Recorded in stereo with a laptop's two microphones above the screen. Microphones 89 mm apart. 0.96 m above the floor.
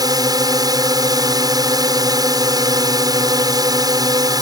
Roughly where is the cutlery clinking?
No cutlery clinking in this recording.